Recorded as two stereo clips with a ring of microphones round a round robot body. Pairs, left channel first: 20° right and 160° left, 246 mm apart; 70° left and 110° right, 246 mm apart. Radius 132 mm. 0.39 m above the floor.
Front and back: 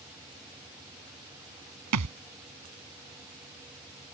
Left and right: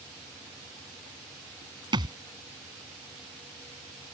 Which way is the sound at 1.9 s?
175° left.